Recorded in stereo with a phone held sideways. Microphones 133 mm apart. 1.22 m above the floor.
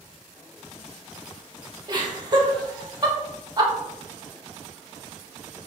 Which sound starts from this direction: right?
Laughter, at 1.9 s.